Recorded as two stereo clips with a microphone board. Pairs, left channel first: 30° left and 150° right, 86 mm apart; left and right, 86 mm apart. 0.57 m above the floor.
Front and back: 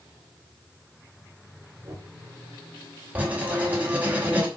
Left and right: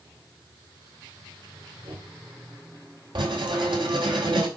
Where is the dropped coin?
I don't hear a dropped coin.